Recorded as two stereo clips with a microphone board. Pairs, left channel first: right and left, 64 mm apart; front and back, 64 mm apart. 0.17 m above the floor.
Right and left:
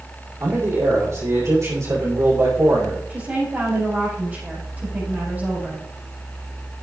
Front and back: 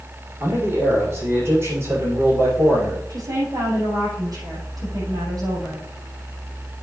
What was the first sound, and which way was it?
A man speaking, 135° left.